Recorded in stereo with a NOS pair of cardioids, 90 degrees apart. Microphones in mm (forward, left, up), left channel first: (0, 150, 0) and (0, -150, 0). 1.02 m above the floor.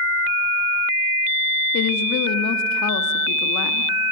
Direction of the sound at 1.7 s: 70° left.